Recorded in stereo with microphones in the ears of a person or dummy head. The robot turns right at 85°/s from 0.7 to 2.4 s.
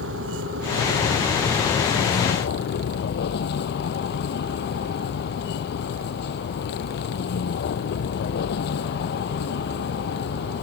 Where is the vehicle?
80° right; by 10.6 s 65° left.